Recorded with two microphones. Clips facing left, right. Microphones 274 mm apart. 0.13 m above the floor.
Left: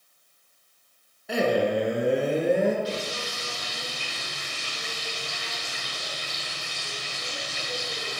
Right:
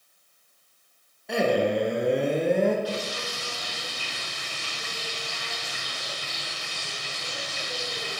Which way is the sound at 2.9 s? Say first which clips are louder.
Even; 25° left (ahead or behind).